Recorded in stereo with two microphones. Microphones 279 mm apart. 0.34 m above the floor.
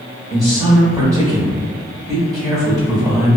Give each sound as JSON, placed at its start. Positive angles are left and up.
{"t": 0.3, "sound": "a man speaking", "side_deg": -15, "distance_m": 0.9}